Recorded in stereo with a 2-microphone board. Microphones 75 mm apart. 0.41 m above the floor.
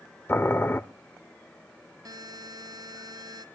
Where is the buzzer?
60° right (ahead or behind), 2.0 m.